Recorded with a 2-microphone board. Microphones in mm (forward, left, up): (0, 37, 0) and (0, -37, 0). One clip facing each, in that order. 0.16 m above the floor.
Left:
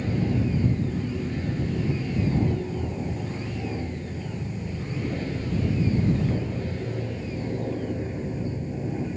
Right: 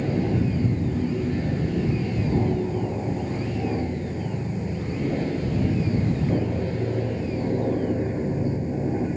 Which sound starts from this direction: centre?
An aircraft, at 0.0 s.